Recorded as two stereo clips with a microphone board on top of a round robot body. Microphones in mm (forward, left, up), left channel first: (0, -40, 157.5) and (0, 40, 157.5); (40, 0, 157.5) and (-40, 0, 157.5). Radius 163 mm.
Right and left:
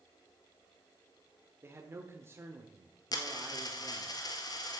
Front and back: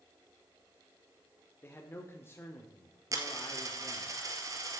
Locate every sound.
1.6 s a man speaking: 45° left, 1.6 m
3.1 s a dropped coin: 130° right, 1.4 m